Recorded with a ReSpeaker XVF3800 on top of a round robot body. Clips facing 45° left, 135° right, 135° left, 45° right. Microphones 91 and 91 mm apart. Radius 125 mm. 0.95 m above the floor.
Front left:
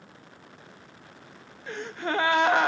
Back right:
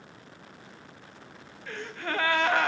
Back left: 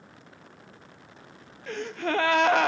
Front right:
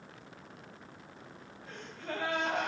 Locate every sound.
1.7 s a gasp: 115° left, 0.6 m